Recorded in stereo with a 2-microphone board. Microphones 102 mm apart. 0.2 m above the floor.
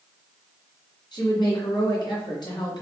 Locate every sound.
1.1 s a woman speaking: 50° left (ahead or behind), 2 m